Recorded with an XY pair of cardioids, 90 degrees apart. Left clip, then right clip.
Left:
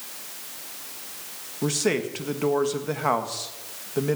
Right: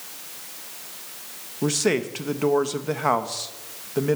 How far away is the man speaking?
About 1.7 m.